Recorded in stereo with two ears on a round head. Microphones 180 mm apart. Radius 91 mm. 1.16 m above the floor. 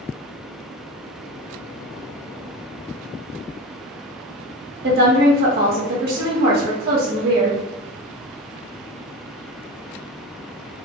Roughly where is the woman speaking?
Right.